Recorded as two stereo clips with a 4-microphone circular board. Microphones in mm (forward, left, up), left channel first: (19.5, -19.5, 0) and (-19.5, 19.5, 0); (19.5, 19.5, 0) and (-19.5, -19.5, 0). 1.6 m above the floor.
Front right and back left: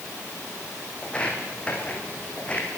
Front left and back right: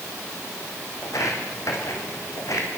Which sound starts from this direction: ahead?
Footsteps, at 1.0 s.